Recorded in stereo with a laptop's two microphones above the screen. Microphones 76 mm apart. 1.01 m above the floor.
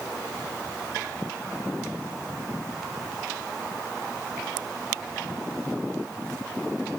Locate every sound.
Only background noise.